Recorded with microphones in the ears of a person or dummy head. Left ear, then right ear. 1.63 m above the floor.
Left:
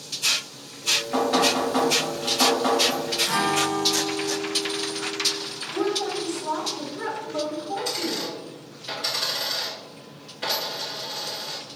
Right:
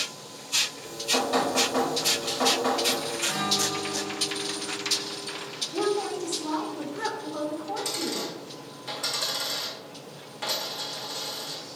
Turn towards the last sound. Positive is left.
turn(degrees=-25)  # may be behind; listen again after turning